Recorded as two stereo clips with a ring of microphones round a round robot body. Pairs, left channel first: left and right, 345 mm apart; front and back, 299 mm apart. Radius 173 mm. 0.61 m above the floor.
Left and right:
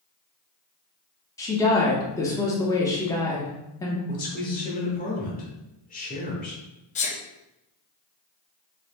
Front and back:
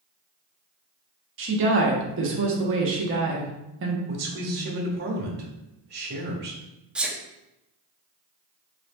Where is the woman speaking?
165° left, 0.9 m.